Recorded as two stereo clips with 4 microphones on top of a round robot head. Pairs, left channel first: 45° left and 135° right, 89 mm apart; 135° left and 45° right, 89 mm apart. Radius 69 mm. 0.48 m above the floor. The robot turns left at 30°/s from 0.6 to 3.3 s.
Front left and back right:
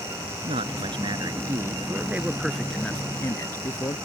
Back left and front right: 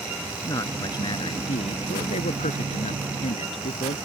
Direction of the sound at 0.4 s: 165° right.